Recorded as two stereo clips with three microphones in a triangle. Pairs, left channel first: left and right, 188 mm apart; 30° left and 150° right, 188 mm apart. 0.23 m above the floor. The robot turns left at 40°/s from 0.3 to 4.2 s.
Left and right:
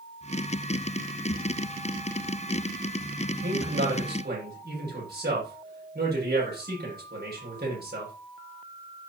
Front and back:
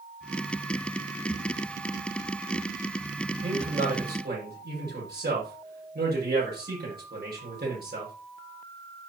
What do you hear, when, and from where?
3.4 s a man speaking: 90° right, 8 m; by 8.1 s 120° right, 8 m